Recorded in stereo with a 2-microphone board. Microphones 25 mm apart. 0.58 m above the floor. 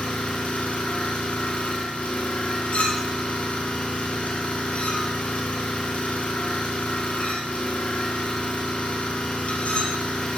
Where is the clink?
70° left (ahead or behind), 1.7 m.